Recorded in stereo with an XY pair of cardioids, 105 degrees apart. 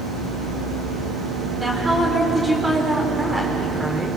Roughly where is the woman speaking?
Ahead.